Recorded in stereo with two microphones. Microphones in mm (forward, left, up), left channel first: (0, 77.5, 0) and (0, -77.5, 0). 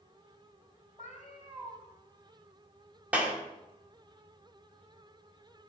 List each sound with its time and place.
1.0 s a cat meowing: 55° left (ahead or behind), 3.5 m
3.1 s a clap: 10° right (ahead or behind), 1.8 m